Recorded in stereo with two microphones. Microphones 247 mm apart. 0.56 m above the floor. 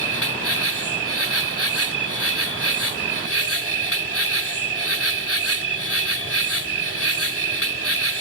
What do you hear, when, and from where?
0.0 s an insect: 65° left (ahead or behind)